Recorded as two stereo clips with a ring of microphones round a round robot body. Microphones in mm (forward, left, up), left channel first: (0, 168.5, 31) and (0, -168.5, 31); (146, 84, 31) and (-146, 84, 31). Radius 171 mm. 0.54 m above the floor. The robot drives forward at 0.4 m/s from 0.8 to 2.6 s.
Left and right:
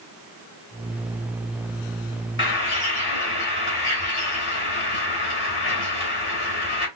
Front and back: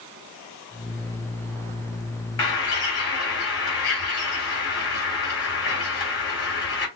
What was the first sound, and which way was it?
A bird, 35° left.